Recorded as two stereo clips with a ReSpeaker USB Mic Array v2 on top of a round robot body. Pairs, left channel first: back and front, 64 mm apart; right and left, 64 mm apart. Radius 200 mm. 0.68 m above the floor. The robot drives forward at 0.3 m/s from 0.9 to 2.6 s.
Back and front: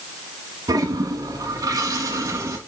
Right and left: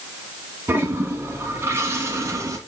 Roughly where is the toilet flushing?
Ahead left.